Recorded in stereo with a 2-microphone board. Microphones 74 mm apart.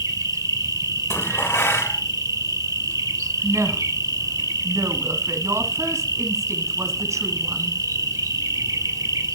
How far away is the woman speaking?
About 1.6 m.